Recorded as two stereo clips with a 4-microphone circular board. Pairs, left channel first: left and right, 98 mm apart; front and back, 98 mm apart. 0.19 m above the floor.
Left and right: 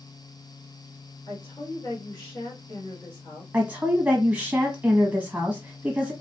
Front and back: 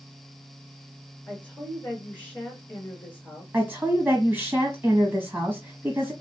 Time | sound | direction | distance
1.3 | a woman speaking | 70° left | 2 m
3.5 | a woman speaking | 145° right | 1.1 m